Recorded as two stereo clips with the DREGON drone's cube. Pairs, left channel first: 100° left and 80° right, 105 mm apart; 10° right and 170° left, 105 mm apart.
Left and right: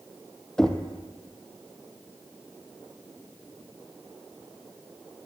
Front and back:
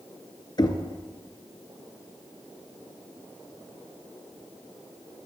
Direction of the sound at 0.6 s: 20° left.